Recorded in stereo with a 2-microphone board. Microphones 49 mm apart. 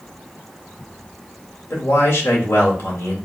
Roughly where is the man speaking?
Left.